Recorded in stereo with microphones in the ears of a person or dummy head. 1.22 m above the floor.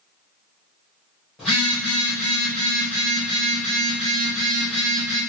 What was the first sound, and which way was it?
A phone buzzing, 10° right (ahead or behind).